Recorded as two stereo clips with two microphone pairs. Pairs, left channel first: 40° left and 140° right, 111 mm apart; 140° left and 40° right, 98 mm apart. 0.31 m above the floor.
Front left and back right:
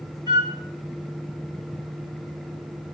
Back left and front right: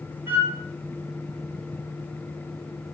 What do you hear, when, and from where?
0.3 s a flute: 100° right, 1.9 m